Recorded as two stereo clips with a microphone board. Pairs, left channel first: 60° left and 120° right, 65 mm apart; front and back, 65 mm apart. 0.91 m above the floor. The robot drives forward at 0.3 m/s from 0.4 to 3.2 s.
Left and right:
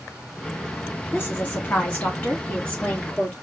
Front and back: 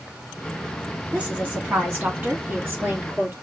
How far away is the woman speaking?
About 1.8 m.